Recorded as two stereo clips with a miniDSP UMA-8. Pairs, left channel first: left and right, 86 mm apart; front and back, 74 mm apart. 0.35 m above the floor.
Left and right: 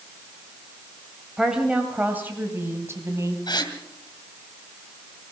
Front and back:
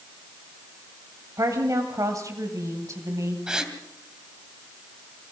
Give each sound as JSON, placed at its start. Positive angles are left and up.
{"t": 1.4, "sound": "a woman speaking", "azimuth_deg": -170, "distance_m": 2.0}
{"t": 3.5, "sound": "a gasp", "azimuth_deg": 100, "distance_m": 2.5}